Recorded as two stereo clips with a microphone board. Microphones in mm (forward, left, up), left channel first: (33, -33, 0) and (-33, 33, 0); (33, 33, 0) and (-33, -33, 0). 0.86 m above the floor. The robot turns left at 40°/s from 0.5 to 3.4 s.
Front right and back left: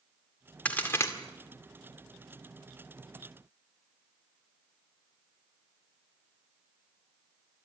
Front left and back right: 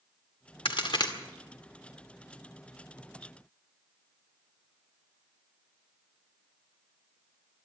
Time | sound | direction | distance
0.7 | a crack | 30° left | 2 m